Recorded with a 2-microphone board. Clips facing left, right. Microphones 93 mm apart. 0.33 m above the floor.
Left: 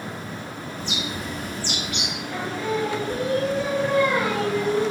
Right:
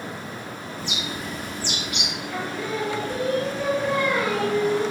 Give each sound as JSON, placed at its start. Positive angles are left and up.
{"t": 0.8, "sound": "a bird", "side_deg": -5, "distance_m": 0.9}
{"t": 2.3, "sound": "singing", "side_deg": 10, "distance_m": 1.5}